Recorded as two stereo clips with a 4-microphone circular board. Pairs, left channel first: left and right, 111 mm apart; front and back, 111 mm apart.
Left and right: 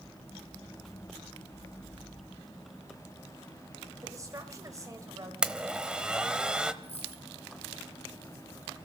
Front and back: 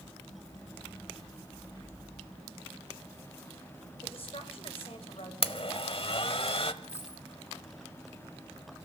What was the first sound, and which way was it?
A woman speaking, 30° right.